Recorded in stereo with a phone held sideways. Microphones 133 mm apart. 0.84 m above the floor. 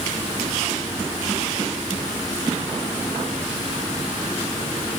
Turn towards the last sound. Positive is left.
No sound to turn to.